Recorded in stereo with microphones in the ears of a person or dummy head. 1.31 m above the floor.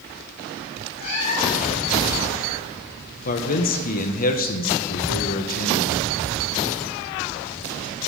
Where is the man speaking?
45° left (ahead or behind), 0.9 m.